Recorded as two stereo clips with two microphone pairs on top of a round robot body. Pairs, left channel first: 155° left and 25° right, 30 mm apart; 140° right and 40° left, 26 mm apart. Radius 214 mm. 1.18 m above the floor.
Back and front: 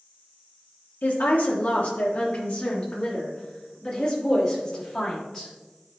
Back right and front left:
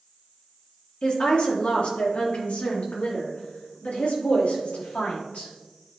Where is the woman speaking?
175° left, 1.1 m; by 5.5 s 130° right, 3.5 m.